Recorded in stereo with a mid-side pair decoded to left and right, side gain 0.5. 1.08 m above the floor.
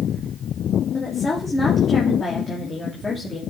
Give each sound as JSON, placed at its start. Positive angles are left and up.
{"t": 0.9, "sound": "a woman speaking", "azimuth_deg": 25, "distance_m": 2.0}